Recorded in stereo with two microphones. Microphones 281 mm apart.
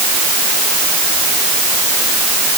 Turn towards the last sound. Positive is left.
No sound to turn to.